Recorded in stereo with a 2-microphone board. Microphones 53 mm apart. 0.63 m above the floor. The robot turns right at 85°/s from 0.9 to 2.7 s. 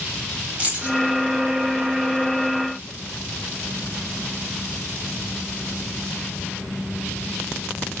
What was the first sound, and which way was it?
Keys jangling, 30° right (ahead or behind).